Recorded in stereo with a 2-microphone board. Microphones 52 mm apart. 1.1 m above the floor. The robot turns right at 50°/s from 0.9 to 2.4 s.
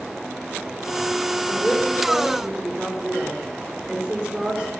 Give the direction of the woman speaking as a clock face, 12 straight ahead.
7 o'clock.